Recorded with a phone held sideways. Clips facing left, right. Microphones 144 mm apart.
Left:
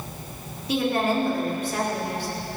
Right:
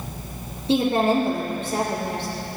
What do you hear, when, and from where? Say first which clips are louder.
0.7 s a woman speaking: right 4 dB; 30° right (ahead or behind), 2.5 m